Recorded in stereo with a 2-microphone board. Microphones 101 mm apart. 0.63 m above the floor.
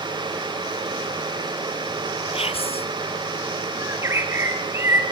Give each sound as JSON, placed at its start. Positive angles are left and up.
{"t": 2.3, "sound": "whispering", "side_deg": 70, "distance_m": 2.0}
{"t": 3.8, "sound": "a bird", "side_deg": -25, "distance_m": 3.5}